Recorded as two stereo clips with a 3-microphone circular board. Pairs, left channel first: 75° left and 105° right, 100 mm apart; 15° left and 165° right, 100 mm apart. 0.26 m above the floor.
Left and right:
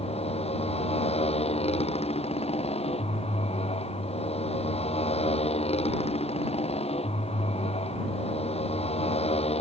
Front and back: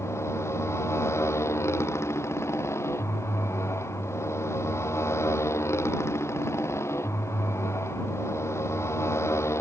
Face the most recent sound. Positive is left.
turn(degrees=80)